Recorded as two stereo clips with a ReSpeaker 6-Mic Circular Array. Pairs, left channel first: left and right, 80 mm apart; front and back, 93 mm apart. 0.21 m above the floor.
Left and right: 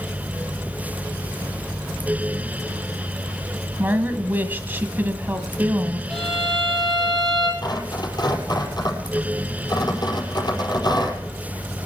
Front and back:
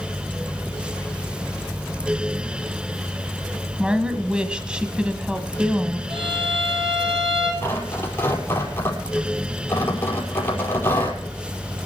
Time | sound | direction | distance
3.8 | a woman speaking | 115° right | 1.5 m
6.1 | a violin | 175° left | 2.5 m
7.6 | tearing paper | 65° left | 5 m